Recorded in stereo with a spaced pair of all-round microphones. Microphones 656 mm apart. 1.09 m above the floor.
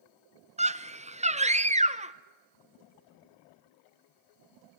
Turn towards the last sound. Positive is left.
turn(degrees=-10)  # may be behind; listen again after turning